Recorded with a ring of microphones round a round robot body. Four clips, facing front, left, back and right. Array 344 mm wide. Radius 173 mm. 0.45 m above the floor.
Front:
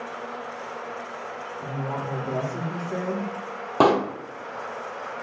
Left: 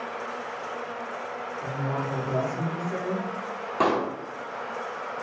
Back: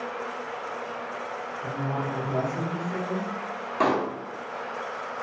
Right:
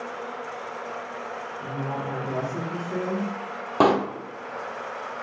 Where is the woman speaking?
30° right, 1.8 m.